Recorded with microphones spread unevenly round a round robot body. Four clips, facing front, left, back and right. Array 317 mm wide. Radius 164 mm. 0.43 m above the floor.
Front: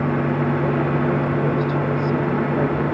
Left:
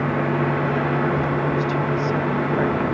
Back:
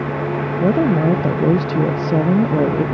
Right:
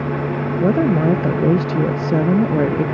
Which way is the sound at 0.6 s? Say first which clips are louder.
Right 5 dB, back 5 dB; 140° right.